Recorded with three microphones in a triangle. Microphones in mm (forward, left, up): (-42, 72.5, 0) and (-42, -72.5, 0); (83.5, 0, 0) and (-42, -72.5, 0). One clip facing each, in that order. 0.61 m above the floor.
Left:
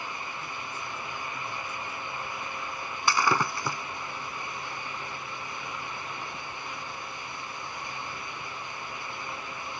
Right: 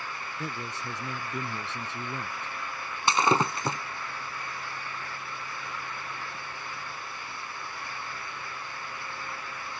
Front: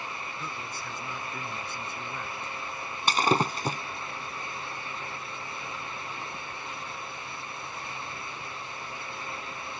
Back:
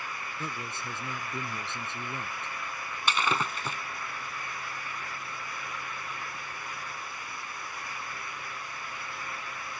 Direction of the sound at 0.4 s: 85° right.